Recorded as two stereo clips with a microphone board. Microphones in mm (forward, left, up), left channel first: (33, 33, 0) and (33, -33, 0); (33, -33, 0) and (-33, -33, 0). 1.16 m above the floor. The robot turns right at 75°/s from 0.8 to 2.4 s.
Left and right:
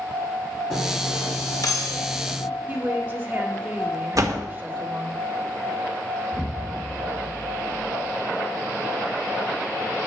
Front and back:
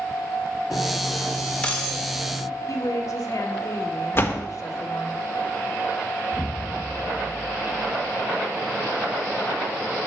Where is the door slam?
55° right, 1.2 m.